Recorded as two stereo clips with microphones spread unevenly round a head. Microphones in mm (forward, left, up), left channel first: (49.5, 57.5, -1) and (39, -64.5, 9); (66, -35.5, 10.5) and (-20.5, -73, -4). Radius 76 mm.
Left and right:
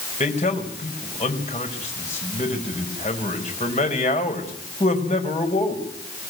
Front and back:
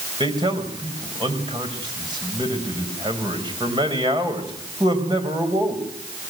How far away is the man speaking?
About 5 m.